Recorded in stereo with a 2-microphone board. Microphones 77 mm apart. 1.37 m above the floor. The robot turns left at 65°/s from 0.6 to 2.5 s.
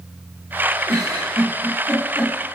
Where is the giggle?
55° right (ahead or behind), 1.6 m; by 2.3 s 30° left (ahead or behind), 1.6 m.